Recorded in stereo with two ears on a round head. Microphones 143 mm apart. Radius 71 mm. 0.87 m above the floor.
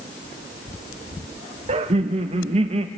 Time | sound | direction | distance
1.7 | laughter | 40° right (ahead or behind) | 0.7 m